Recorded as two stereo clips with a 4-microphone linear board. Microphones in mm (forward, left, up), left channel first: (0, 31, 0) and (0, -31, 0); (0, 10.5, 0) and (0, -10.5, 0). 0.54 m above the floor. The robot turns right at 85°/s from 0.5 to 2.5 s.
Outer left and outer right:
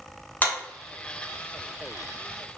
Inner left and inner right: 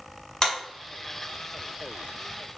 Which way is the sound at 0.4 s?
30° left (ahead or behind).